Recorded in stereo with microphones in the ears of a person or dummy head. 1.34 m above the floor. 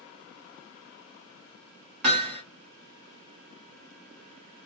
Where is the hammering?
60° right (ahead or behind), 1.0 m.